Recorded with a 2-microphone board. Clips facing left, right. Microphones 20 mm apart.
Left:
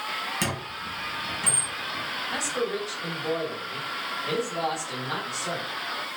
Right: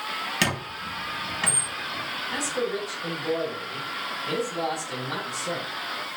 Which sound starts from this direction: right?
A squeak, at 0.4 s.